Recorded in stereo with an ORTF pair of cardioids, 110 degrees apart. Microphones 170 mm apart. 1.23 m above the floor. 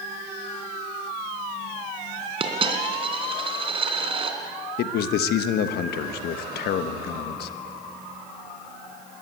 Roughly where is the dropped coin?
Ahead right.